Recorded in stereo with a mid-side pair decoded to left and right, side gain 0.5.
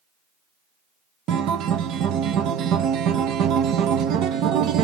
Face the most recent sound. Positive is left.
turn(degrees=-70)